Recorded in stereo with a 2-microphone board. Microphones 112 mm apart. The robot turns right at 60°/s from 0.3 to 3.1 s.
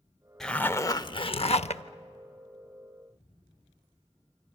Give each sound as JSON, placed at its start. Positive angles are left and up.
{"t": 0.4, "sound": "a zipper", "azimuth_deg": 5, "distance_m": 0.6}